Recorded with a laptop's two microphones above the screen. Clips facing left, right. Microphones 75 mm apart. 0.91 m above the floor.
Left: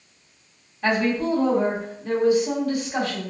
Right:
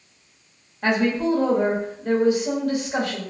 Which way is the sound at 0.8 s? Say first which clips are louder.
Right 1 dB; 60° right (ahead or behind).